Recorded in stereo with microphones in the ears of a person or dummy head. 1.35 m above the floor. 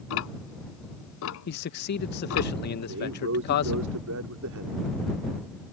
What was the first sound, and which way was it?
Ticking, 75° left (ahead or behind).